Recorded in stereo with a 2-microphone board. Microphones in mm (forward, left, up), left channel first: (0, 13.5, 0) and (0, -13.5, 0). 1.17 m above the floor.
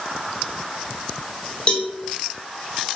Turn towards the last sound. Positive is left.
turn(degrees=35)  # may be behind; listen again after turning